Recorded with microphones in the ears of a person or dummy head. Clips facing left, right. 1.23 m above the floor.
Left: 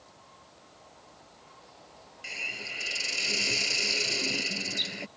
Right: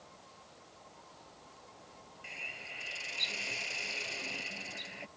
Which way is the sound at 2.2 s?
65° left (ahead or behind).